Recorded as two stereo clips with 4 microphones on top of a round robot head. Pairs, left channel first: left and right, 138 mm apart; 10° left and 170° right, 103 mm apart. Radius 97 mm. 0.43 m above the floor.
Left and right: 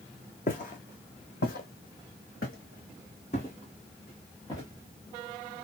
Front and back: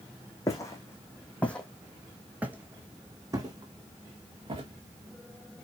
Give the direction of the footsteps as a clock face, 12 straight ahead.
10 o'clock.